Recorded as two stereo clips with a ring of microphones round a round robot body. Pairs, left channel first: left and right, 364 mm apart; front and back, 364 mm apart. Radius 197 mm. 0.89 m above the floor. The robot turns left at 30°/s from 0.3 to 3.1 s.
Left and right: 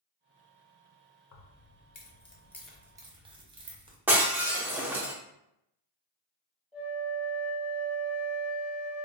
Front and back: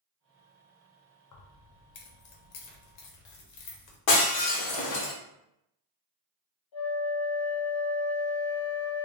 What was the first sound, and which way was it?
Keys jangling, 40° left.